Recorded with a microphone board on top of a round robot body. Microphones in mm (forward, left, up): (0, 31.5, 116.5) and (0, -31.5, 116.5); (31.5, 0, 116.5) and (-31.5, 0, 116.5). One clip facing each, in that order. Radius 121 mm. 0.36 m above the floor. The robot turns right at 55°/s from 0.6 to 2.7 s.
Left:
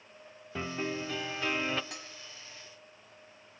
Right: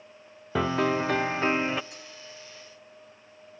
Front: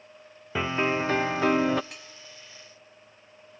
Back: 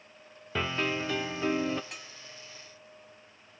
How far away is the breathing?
I don't hear breathing.